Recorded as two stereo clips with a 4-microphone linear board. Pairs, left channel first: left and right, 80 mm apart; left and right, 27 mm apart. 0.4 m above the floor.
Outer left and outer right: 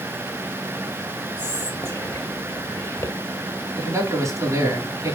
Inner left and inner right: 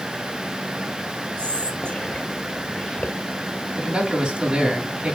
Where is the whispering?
50° left (ahead or behind), 1.4 m.